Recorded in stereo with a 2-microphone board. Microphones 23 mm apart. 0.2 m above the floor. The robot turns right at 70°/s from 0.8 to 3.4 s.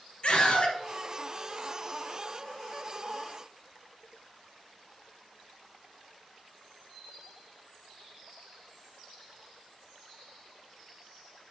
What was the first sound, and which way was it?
A scream, 55° left (ahead or behind).